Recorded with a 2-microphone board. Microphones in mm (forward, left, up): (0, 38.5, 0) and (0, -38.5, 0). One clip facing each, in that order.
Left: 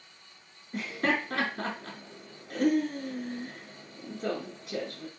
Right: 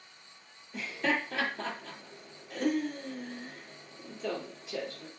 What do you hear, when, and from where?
0.7 s laughter: 70° left (ahead or behind), 4 m